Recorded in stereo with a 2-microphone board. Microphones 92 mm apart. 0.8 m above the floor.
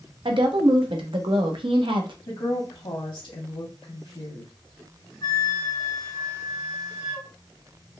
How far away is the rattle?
No rattle in this recording.